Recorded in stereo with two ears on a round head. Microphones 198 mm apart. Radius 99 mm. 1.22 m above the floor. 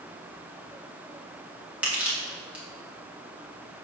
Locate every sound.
1.8 s crushing: 5° right (ahead or behind), 1.5 m